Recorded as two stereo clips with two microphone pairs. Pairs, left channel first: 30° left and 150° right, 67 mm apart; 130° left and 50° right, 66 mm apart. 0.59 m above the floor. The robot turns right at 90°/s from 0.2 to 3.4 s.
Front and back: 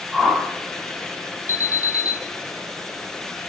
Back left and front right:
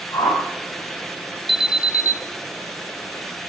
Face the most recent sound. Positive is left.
turn(degrees=30)